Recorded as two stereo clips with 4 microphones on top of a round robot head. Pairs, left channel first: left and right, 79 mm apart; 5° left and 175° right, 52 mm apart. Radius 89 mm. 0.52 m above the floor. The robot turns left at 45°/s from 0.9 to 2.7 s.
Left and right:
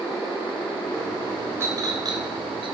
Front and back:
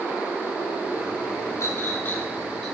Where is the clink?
30° right, 1.7 m; by 2.7 s 80° right, 1.7 m.